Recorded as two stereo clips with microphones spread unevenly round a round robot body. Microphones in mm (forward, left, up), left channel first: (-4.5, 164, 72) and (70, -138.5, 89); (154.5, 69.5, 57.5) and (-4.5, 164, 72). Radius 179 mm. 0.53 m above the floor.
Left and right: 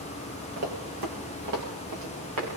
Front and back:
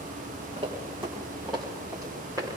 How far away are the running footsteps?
About 4 m.